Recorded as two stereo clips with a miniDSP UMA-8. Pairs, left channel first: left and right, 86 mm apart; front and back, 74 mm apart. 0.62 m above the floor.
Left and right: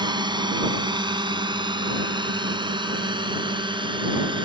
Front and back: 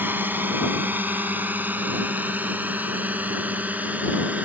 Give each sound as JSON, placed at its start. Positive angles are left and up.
{"t": 0.0, "sound": "a drone", "azimuth_deg": -120}